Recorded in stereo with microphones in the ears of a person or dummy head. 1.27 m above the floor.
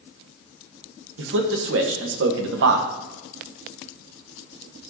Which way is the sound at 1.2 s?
65° right (ahead or behind).